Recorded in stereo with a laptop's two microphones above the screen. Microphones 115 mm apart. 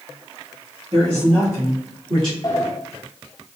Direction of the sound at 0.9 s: 50° right (ahead or behind).